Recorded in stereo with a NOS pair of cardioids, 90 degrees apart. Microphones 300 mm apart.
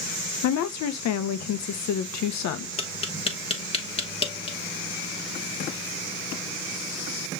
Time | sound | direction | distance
0.4 | a woman speaking | 65° left | 0.8 m
2.8 | tapping | 20° left | 1.3 m